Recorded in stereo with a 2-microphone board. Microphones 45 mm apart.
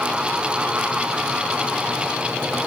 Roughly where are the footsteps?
No footsteps in this recording.